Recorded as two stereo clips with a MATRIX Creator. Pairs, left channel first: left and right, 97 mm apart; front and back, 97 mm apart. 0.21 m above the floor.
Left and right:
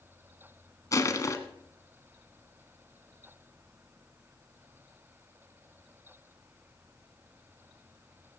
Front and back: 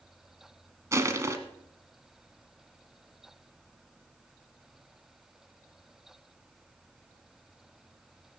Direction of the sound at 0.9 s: 130° left.